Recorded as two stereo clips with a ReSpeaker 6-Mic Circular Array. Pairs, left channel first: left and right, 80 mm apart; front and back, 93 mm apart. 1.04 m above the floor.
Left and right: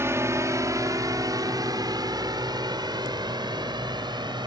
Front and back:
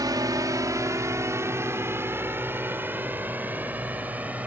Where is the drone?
140° right; by 4.5 s 105° right.